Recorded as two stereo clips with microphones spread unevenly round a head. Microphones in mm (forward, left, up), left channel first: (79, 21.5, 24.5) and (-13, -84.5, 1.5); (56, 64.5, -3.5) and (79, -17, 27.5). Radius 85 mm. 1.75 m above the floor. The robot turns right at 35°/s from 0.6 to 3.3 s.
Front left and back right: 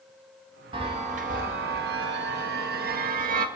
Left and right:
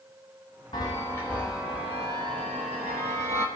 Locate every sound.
0.7 s a chime: 165° left, 0.6 m; by 3.5 s 105° right, 0.6 m